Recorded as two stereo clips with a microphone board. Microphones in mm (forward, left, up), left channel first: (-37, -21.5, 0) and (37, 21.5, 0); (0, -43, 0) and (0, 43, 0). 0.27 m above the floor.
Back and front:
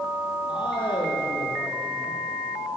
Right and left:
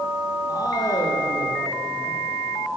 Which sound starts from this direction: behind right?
A man speaking, at 0.5 s.